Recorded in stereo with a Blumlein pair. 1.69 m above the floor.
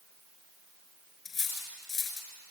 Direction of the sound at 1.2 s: 25° left.